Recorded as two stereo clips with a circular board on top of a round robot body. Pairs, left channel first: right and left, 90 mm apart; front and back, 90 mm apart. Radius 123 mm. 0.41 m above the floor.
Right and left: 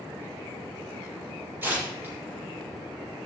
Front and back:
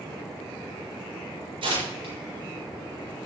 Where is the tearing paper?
160° left, 7 m.